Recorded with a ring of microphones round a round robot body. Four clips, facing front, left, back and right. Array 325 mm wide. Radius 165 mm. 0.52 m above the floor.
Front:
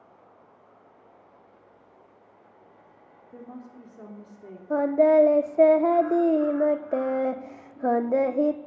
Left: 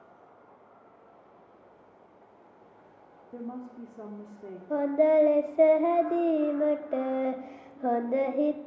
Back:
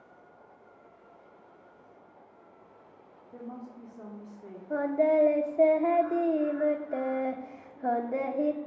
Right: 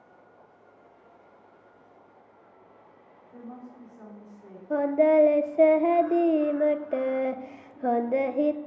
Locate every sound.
3.3 s a woman speaking: 80° left, 1.5 m
4.7 s singing: 20° right, 0.7 m